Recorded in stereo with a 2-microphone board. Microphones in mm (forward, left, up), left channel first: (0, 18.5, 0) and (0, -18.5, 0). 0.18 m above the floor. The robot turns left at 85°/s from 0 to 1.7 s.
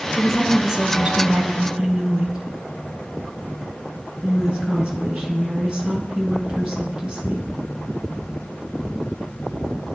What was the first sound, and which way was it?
A woman speaking, 25° left.